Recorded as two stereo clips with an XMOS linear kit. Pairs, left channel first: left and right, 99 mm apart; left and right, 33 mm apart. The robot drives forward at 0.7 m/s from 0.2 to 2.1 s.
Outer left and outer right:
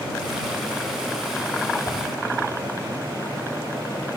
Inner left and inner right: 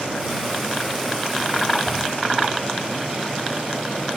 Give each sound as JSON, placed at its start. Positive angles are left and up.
{"t": 1.9, "sound": "a whoosh", "side_deg": 40, "distance_m": 4.0}